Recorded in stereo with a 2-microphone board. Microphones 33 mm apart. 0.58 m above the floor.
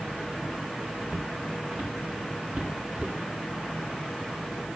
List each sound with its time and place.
1.1 s footsteps: 85° right, 4.5 m; by 3.1 s 50° right (ahead or behind), 4 m